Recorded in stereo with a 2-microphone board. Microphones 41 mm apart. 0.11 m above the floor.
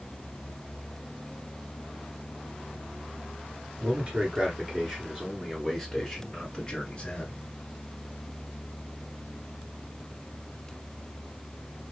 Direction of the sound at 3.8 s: 35° right (ahead or behind).